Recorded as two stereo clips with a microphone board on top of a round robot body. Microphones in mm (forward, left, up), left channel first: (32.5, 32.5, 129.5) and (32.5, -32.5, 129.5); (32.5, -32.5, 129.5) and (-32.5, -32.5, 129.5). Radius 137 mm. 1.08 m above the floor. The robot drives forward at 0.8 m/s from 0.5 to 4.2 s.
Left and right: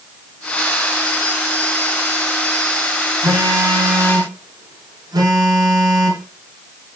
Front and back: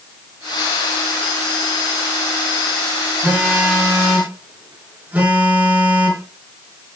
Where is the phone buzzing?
110° right, 9.5 m; by 6.2 s 115° right, 9.5 m.